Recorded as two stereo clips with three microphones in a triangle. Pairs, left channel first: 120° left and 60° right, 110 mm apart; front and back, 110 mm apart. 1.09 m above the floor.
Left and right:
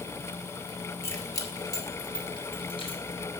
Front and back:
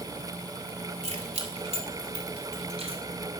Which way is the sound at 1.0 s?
175° right.